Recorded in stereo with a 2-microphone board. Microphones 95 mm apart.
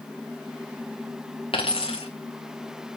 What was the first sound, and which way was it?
A dropped coin, 80° left.